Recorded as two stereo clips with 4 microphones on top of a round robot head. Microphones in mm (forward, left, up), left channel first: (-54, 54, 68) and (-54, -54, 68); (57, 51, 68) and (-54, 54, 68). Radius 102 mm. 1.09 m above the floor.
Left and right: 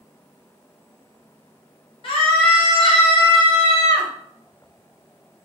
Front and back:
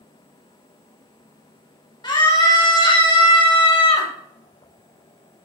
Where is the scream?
45° left, 2 m; by 4.1 s 30° left, 1.2 m.